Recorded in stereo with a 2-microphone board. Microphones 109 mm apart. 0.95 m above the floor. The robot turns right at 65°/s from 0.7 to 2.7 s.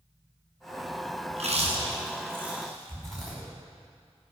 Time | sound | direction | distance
1.3 | chewing | 90° right | 5 m